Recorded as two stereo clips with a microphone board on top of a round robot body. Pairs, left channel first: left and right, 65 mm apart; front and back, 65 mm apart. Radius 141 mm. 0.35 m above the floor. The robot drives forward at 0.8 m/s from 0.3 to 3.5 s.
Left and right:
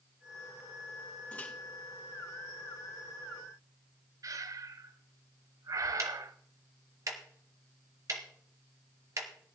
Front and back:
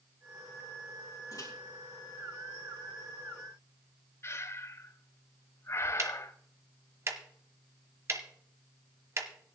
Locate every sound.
1.3 s a microwave: 25° left, 4.5 m
4.2 s breathing: 50° right, 0.5 m
6.0 s ticking: 130° right, 1.1 m